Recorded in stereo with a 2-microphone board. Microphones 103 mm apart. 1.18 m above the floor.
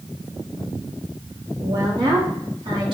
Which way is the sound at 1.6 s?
40° right (ahead or behind).